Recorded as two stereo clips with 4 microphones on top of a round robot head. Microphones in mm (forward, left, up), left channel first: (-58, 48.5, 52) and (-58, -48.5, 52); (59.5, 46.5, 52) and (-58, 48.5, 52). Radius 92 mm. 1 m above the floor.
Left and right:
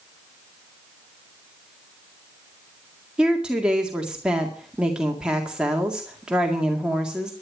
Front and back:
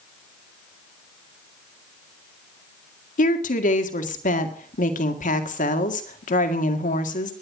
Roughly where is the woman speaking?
Ahead.